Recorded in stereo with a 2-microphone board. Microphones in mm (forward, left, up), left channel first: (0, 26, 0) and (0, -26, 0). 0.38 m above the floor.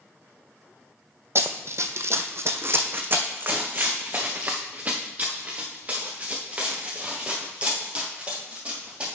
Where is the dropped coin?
No dropped coin in this recording.